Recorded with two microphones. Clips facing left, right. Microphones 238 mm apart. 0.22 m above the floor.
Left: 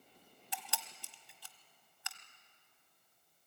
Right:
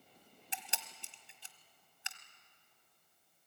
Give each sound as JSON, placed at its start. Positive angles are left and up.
{"t": 0.5, "sound": "a camera shutter", "side_deg": -25, "distance_m": 1.3}